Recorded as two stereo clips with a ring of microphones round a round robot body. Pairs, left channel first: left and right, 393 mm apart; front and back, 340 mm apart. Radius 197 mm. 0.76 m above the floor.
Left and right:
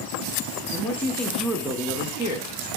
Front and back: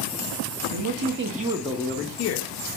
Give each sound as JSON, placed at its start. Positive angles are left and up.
{"t": 0.7, "sound": "a man speaking", "azimuth_deg": 175, "distance_m": 0.7}